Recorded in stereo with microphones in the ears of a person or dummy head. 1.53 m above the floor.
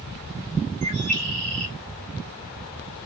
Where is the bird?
80° right, 1.2 m.